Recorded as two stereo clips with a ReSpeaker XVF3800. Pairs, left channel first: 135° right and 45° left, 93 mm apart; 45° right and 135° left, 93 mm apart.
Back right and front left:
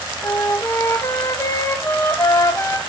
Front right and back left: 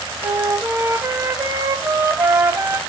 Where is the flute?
175° right, 0.7 m.